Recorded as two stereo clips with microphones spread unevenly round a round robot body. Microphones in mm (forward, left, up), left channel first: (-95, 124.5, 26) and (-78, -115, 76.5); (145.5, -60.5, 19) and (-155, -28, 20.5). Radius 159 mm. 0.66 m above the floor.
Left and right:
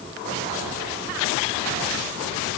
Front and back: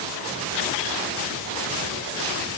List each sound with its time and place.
Only background noise.